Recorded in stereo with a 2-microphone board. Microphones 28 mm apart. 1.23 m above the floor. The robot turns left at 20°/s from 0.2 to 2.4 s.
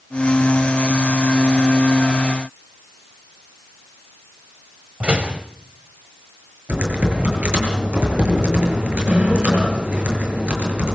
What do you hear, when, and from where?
5.0 s a door slam: 50° right (ahead or behind), 5.5 m
6.7 s typing on a keyboard: 55° right (ahead or behind), 8.5 m